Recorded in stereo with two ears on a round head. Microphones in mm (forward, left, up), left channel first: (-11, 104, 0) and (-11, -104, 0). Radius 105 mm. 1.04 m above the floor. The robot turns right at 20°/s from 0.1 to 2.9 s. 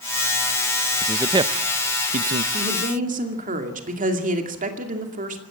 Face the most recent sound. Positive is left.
turn(degrees=-35)  # may be behind; listen again after turning